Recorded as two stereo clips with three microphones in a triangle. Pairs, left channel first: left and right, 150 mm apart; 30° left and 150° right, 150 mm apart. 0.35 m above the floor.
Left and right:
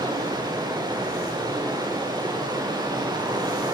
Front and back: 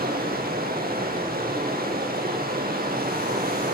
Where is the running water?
155° right, 6.5 m.